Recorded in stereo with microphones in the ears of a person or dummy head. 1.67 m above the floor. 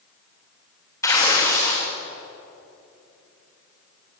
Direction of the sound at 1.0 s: 20° left (ahead or behind).